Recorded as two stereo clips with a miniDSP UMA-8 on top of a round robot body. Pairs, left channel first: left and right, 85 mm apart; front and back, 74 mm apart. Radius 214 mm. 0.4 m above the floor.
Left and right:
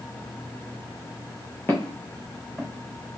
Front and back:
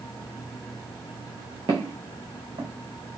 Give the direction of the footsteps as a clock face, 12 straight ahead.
7 o'clock.